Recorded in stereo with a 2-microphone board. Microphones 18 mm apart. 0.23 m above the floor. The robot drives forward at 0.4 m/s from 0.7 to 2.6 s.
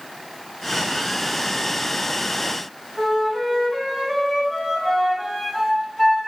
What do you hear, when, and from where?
3.0 s a flute: 15° left (ahead or behind), 1.4 m